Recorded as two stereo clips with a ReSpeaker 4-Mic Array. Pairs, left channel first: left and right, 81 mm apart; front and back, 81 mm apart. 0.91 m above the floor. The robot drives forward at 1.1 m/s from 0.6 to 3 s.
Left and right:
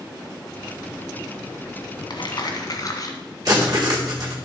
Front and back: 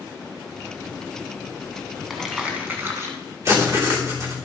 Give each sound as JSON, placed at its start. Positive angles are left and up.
{"t": 2.1, "sound": "crumpling", "azimuth_deg": 90, "distance_m": 1.6}
{"t": 3.5, "sound": "writing", "azimuth_deg": -130, "distance_m": 3.0}